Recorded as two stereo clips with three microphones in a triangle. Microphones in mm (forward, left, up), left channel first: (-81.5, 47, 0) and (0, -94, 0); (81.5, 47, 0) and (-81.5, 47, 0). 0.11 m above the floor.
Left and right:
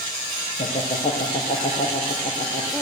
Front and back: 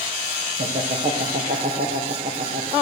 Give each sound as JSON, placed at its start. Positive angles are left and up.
{"t": 0.6, "sound": "laughter", "azimuth_deg": 165, "distance_m": 4.0}